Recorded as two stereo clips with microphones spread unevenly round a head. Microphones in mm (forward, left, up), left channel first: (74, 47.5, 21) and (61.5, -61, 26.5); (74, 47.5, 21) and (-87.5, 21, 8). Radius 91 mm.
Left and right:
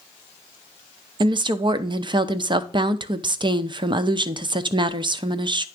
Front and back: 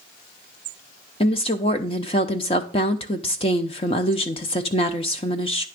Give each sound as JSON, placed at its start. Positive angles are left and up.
{"t": 1.2, "sound": "a woman speaking", "azimuth_deg": -50, "distance_m": 0.7}